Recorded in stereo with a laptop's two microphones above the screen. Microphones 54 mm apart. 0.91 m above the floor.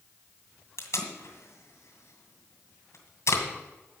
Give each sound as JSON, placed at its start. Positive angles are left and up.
{"t": 0.8, "sound": "tape being pulled", "side_deg": 60, "distance_m": 2.0}